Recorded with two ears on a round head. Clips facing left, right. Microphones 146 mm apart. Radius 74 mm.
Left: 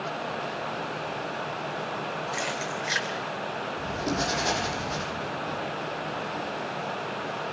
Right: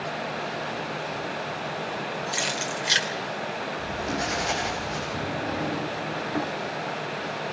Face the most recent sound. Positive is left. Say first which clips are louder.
# right 3 dB
turn(degrees=-80)